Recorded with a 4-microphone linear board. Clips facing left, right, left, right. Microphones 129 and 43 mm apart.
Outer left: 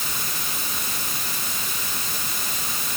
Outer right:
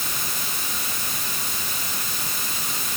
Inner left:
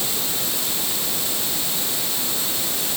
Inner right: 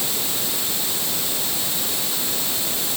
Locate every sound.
Only background noise.